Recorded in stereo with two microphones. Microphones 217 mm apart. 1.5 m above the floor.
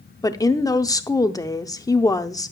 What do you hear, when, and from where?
0.2 s a woman speaking: 15° left (ahead or behind), 0.6 m